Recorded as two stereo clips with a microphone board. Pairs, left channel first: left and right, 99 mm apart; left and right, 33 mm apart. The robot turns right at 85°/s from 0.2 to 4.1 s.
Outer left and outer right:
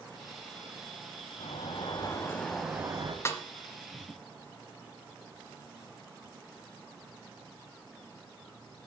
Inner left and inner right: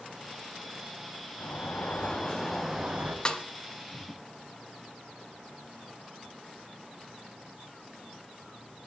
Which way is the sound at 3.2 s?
25° left (ahead or behind).